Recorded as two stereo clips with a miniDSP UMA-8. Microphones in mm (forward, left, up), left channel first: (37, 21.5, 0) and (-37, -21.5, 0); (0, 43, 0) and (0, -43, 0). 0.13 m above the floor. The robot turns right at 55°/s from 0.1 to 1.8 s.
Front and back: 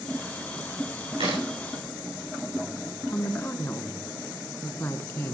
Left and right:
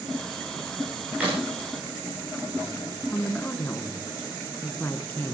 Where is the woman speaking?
55° left, 1.3 m.